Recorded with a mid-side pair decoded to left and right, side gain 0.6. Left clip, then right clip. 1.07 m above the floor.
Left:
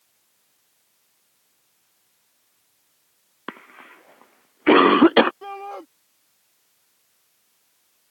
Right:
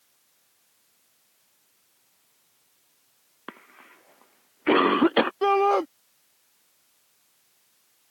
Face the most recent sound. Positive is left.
turn(degrees=-55)